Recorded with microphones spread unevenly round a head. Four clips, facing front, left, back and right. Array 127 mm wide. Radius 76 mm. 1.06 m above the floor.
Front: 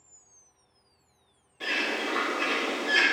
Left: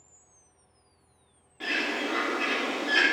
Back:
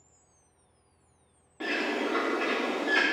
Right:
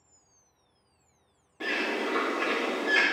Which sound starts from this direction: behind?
A bird, at 1.6 s.